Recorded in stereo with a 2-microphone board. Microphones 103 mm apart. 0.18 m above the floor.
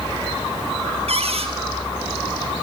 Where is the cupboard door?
75° right (ahead or behind), 2.5 m.